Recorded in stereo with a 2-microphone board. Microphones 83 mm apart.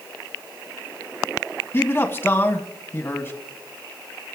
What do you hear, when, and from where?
1.7 s a man speaking: 30° left (ahead or behind), 2 m